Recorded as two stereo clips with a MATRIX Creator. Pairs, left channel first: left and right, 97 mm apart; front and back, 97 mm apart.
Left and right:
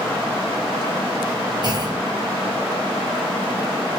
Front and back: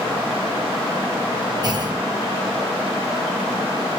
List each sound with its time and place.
1.6 s a clunk: 135° right, 0.8 m